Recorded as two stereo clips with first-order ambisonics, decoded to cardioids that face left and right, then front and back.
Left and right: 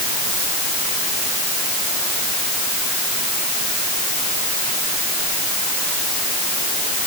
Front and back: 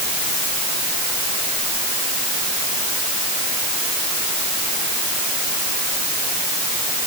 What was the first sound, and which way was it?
Only background noise.